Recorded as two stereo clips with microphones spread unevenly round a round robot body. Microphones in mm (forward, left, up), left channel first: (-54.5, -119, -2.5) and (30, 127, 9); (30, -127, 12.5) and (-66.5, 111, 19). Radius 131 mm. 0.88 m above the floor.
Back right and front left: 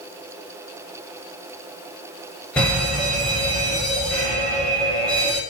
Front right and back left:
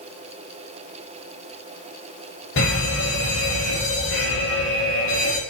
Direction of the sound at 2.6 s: 25° right.